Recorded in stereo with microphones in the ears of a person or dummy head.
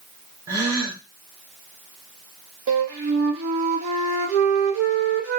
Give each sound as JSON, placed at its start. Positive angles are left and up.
{"t": 0.5, "sound": "a gasp", "side_deg": -15, "distance_m": 1.0}
{"t": 2.7, "sound": "a flute", "side_deg": -70, "distance_m": 1.1}